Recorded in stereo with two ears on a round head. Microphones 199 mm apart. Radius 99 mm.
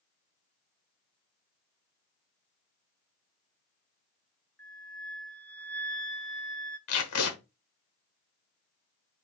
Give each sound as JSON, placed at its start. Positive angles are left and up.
{"t": 4.6, "sound": "a flute", "side_deg": 5, "distance_m": 0.7}
{"t": 6.9, "sound": "tape being pulled", "side_deg": 80, "distance_m": 1.4}